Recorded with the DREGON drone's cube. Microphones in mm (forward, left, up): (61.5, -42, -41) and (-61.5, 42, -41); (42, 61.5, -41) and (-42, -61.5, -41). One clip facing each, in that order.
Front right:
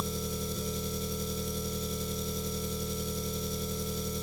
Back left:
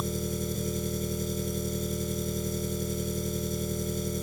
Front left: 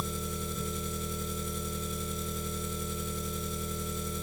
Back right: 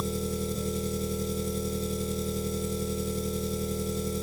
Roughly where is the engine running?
Behind.